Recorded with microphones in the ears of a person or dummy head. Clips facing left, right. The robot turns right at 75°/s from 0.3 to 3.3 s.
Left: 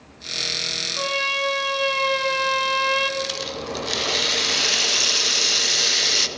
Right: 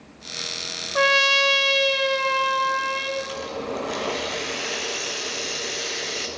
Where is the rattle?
55° left (ahead or behind), 1.0 m; by 6.3 s 60° left (ahead or behind), 1.0 m.